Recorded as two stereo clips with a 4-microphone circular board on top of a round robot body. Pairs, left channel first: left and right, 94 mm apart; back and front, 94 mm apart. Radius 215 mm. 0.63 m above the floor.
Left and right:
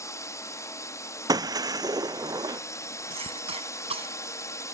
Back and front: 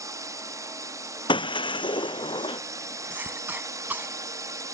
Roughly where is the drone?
Ahead left.